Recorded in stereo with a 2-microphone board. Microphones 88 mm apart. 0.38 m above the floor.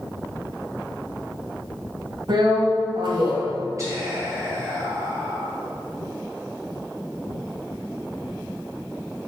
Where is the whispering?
40° right (ahead or behind), 2.5 m.